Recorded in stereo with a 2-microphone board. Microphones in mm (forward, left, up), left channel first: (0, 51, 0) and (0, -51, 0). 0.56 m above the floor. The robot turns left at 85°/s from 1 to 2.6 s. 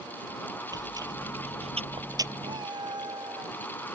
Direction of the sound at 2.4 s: 60° right (ahead or behind).